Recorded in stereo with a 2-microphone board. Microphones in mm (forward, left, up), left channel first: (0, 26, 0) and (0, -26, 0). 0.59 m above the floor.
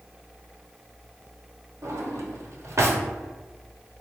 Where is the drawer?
65° right (ahead or behind), 0.7 m.